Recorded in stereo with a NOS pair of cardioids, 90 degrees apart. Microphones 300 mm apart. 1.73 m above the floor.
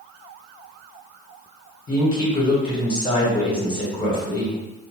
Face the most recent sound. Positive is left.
turn(degrees=15)